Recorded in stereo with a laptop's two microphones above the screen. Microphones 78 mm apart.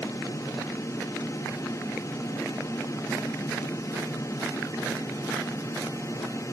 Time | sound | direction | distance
0.0 | a fan | 40° left (ahead or behind) | 1.0 m